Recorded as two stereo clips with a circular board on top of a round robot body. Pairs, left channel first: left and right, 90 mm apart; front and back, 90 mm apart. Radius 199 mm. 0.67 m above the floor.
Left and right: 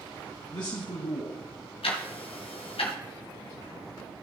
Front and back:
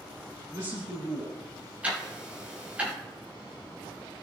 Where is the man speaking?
125° left, 3 m.